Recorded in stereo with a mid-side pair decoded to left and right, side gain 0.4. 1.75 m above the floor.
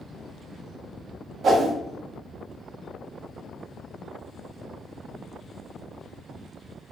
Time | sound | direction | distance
1.4 | a whoosh | 60° right | 0.7 m